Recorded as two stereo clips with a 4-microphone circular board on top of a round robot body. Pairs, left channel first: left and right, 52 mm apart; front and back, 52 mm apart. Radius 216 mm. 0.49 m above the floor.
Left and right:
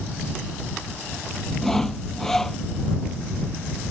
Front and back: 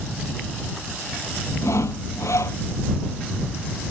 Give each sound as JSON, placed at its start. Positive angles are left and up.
{"t": 1.6, "sound": "sawing", "azimuth_deg": 10}